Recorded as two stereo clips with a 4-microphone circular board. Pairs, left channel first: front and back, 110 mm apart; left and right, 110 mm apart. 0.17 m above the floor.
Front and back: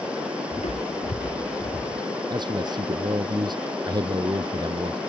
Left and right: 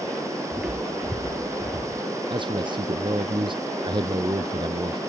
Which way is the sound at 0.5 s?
10° right.